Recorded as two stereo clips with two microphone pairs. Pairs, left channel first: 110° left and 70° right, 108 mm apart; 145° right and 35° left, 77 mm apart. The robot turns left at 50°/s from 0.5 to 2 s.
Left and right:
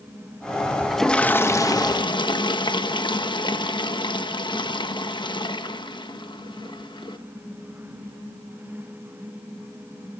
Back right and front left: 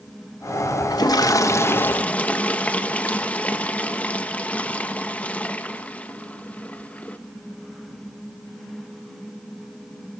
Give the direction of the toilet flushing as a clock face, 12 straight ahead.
5 o'clock.